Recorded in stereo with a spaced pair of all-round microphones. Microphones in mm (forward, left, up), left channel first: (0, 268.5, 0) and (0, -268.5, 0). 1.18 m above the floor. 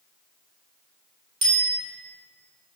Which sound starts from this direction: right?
A bicycle bell, at 1.4 s.